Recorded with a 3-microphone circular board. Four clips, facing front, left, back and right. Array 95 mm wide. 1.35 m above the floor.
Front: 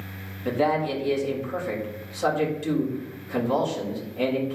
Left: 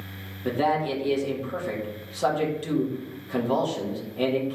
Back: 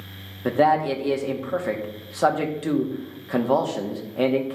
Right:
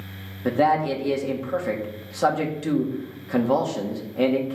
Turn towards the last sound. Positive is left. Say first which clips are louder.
# right 4 dB, back 4 dB
turn(degrees=-155)